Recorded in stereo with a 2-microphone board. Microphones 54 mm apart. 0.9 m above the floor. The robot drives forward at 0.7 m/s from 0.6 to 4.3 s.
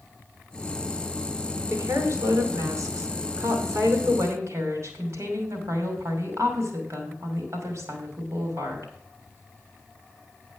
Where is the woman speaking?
65° right (ahead or behind), 2.5 m; by 8.9 s 70° right (ahead or behind), 2.5 m.